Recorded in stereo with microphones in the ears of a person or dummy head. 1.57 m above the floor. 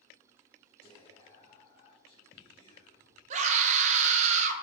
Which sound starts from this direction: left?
Whispering, at 0.8 s.